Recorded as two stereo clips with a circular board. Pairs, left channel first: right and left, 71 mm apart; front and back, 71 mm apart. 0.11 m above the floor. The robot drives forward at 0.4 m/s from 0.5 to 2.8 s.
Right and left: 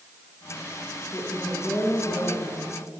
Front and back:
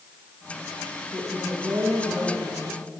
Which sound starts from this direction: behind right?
A woman speaking, at 1.1 s.